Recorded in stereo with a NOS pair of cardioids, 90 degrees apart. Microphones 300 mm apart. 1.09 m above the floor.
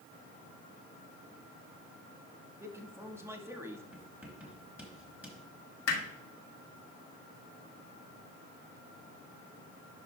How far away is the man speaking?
About 1.4 m.